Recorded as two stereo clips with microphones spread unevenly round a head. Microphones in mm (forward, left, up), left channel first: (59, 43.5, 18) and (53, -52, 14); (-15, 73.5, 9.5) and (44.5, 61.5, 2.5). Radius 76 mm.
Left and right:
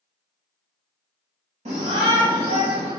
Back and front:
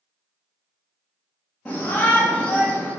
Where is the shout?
110° right, 2.5 m.